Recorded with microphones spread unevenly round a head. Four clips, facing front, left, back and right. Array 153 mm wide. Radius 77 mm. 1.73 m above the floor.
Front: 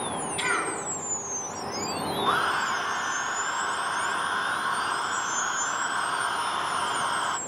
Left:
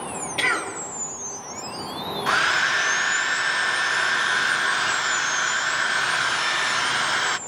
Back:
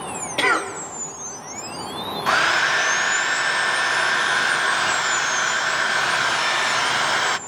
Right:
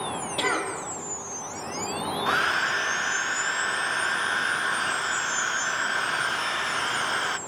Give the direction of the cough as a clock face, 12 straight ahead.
6 o'clock.